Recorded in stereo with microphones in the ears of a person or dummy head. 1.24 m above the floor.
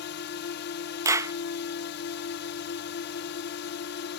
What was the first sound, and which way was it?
A drone, 55° left (ahead or behind).